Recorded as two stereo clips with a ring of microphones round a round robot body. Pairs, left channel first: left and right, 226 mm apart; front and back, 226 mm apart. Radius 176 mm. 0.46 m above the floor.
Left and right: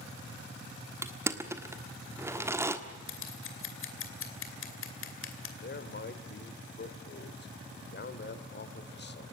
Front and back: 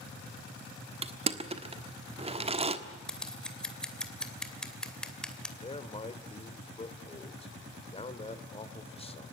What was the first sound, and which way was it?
Crushing, 155° right.